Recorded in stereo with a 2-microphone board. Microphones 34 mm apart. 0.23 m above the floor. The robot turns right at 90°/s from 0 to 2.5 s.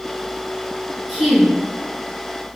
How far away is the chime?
No chime in this recording.